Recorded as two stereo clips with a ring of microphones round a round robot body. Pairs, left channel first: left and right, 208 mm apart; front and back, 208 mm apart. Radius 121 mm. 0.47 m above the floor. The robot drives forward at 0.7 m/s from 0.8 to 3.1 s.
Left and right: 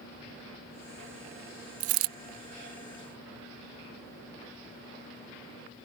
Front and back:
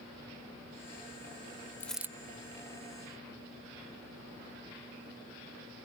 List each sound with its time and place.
1.8 s a dropped coin: 80° right; by 2.1 s 105° right